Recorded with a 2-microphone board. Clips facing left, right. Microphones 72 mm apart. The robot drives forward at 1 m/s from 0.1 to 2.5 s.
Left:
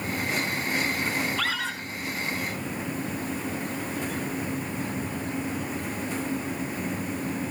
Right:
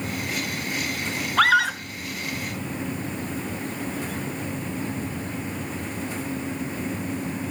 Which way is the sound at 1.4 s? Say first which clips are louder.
Right 11 dB; 70° right (ahead or behind).